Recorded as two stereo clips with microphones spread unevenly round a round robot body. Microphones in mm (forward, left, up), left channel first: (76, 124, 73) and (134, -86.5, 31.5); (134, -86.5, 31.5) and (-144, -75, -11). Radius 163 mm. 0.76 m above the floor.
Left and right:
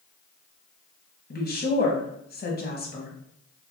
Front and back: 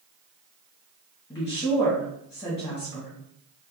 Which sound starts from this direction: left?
A woman speaking, at 1.3 s.